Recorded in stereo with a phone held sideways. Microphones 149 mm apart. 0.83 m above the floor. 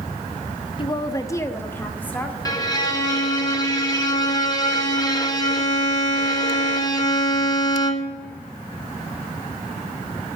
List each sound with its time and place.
0.8 s a woman speaking: 35° left (ahead or behind), 0.5 m; by 2.4 s 10° left (ahead or behind), 1.6 m
2.5 s a violin: 25° left (ahead or behind), 1.1 m